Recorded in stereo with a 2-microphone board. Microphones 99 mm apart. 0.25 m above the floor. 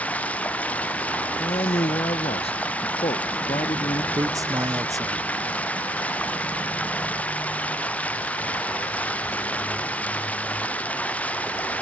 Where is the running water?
15° left (ahead or behind).